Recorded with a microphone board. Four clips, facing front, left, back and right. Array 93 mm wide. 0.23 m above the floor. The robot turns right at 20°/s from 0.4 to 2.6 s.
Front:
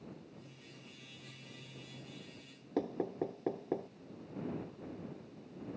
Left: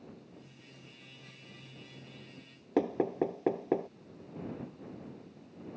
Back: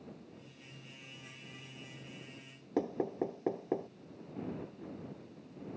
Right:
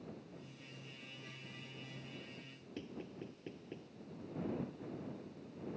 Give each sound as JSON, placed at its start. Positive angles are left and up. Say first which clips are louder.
{"t": 2.8, "sound": "knocking", "louder": "left 19 dB, back 2 dB", "azimuth_deg": 100}